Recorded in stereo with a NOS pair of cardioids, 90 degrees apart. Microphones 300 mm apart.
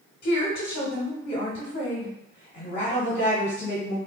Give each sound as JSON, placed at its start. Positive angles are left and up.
{"t": 0.2, "sound": "a woman speaking", "azimuth_deg": 35, "distance_m": 1.0}